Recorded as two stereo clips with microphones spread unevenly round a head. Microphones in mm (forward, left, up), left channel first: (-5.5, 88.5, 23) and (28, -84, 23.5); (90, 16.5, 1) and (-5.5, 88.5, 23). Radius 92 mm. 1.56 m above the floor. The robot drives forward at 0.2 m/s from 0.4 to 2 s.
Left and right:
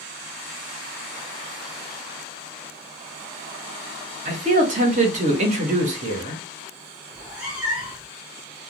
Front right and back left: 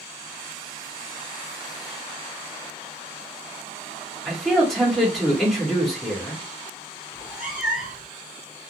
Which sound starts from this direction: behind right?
A man speaking, at 4.2 s.